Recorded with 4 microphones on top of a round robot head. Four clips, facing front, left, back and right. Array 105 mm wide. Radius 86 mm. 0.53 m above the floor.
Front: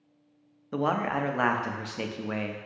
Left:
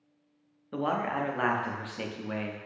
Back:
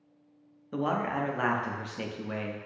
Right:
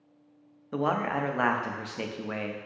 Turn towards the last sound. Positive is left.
turn(degrees=-35)